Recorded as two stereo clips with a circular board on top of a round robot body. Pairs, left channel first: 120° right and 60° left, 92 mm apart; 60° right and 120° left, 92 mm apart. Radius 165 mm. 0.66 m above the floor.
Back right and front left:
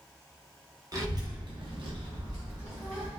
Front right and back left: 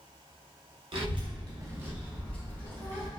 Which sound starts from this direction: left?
A child speaking, at 0.9 s.